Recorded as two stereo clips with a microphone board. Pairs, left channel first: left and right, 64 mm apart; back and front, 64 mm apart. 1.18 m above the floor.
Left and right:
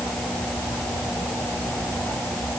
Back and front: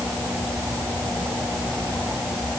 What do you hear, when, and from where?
Only background noise.